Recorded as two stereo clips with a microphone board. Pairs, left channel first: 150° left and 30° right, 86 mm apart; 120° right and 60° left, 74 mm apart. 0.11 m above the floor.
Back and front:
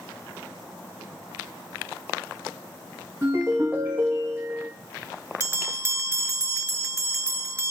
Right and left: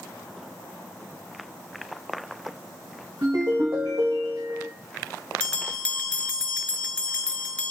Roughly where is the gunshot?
No gunshot in this recording.